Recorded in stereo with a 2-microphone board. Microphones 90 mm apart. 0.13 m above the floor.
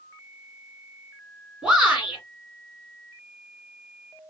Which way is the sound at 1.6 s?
10° right (ahead or behind).